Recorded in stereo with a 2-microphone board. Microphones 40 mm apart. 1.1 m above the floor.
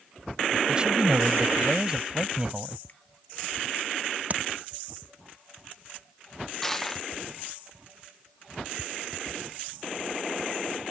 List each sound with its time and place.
0.7 s a man speaking: 20° right (ahead or behind)
2.9 s a finger snap: 45° left (ahead or behind)
4.3 s tapping: 40° right (ahead or behind)
6.6 s crushing: 10° left (ahead or behind)